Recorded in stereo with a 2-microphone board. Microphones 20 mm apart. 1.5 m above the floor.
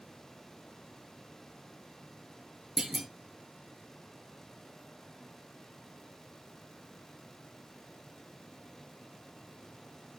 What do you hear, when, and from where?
2.8 s a clunk: 25° right (ahead or behind), 0.9 m